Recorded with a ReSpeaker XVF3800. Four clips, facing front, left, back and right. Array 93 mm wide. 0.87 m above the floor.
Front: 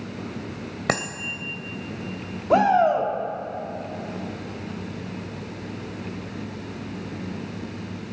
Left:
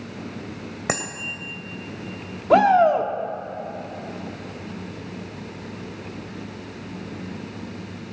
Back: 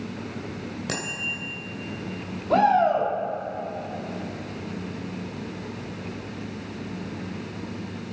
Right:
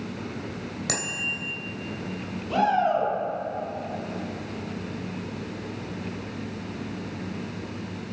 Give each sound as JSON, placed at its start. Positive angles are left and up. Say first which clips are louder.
{"t": 0.9, "sound": "a bicycle bell", "louder": "left 5 dB, front 7 dB", "azimuth_deg": 30, "distance_m": 3.0}
{"t": 2.5, "sound": "a shout", "louder": "left 7 dB, front 1 dB", "azimuth_deg": 75, "distance_m": 1.9}